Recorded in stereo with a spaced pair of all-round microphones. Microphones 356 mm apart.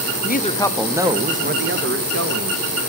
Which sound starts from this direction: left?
A woman speaking, at 0.2 s.